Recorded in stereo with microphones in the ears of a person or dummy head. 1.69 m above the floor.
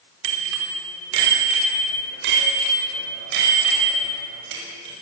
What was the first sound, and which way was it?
A bicycle bell, 80° right.